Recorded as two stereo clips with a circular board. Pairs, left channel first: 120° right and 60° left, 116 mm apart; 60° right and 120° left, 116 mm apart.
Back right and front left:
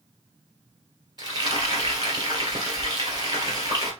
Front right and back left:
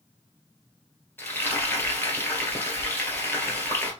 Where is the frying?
10° left, 2 m.